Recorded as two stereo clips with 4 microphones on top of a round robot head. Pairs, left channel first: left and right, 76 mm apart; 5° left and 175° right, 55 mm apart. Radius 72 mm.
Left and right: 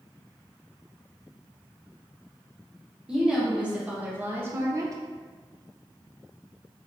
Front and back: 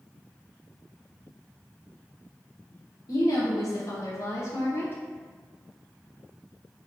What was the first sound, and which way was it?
A woman speaking, 10° right.